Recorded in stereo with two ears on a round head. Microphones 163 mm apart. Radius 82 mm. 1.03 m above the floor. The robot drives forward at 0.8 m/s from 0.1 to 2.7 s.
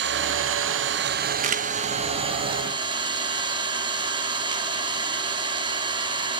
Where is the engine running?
65° right (ahead or behind), 1.0 m; by 6.4 s 25° right (ahead or behind), 1.9 m.